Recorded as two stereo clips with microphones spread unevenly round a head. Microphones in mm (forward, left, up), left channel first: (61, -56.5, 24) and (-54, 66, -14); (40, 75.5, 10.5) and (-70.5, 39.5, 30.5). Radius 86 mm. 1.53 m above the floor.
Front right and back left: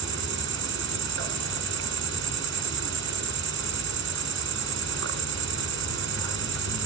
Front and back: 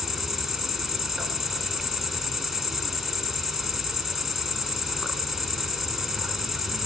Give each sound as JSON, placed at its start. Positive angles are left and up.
{"t": 0.0, "sound": "an insect", "azimuth_deg": 110, "distance_m": 4.0}